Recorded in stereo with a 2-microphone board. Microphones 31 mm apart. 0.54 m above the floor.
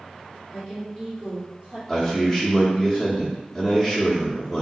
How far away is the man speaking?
About 0.7 m.